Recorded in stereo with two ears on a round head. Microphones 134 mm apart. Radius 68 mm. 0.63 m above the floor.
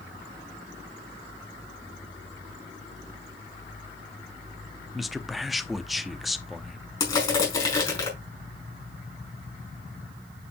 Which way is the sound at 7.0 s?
20° left (ahead or behind).